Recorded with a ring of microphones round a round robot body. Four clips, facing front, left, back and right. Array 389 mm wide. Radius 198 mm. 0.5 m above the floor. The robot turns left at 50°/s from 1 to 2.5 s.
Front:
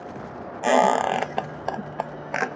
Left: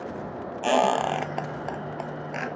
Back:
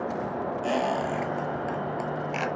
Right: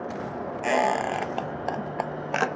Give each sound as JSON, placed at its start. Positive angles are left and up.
{"t": 0.6, "sound": "a squeak", "azimuth_deg": 15, "distance_m": 0.6}